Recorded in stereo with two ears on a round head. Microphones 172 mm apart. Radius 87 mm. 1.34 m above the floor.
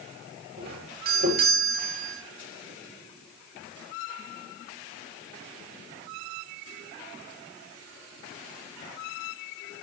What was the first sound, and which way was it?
A doorbell, 50° right (ahead or behind).